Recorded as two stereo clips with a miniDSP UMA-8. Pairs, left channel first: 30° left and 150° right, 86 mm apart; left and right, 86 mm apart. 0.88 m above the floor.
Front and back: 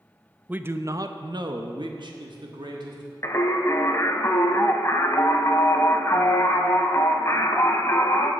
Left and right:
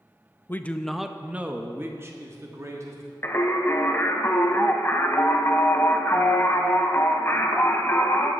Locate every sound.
0.5 s a man speaking: 145° left, 0.5 m; by 3.1 s 140° right, 1.6 m
3.2 s singing: 50° left, 0.8 m